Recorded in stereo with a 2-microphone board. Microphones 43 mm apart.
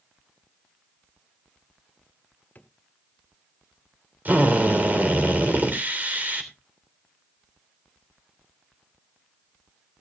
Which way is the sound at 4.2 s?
40° right (ahead or behind).